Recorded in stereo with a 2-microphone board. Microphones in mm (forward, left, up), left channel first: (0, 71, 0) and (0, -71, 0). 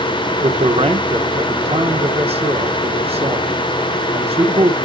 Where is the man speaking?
40° right (ahead or behind), 1.6 m.